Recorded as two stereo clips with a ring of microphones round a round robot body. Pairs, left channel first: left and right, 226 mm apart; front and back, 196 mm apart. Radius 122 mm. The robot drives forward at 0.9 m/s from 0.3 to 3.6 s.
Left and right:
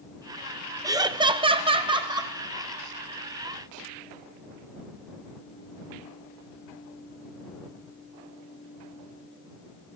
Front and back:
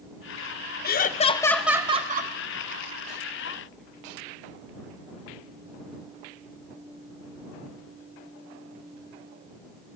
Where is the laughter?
20° right, 0.9 m; by 2.3 s 160° right, 0.9 m.